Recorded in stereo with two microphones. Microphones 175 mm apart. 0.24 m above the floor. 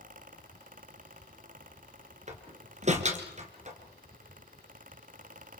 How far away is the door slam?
About 2.5 m.